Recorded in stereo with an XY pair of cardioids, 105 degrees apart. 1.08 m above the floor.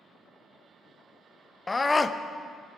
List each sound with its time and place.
1.7 s a scream: 20° left, 0.6 m